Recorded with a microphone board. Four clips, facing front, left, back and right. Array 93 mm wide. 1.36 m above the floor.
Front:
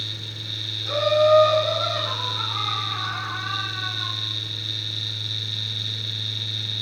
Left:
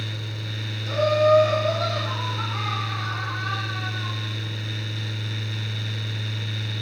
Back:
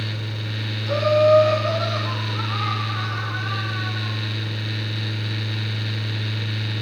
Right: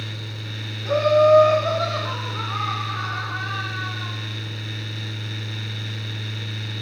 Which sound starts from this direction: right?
Laughter, at 0.8 s.